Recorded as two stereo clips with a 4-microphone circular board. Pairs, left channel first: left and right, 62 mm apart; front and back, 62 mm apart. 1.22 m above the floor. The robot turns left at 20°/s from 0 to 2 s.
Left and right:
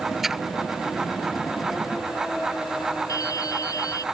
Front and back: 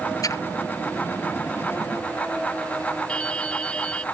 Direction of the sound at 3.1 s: 70° left.